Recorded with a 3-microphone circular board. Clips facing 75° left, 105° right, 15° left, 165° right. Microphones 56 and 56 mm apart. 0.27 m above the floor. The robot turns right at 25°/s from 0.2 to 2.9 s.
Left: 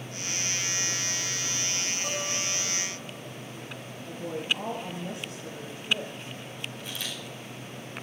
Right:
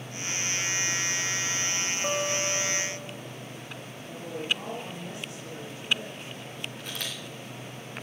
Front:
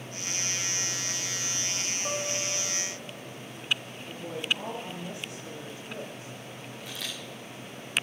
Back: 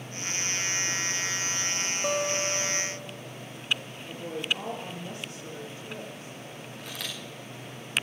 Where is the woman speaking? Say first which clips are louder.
Left 1 dB, even; 135° left, 7.5 m.